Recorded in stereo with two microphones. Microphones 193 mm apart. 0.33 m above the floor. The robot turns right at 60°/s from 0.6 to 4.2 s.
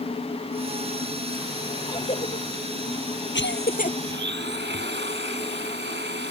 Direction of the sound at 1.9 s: 20° left (ahead or behind).